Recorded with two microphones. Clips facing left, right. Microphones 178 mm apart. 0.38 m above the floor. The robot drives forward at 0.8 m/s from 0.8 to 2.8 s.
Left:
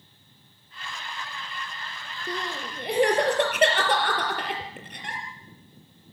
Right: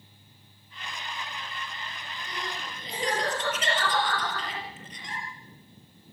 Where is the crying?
60° left (ahead or behind), 5 m; by 5.2 s 65° left (ahead or behind), 5 m.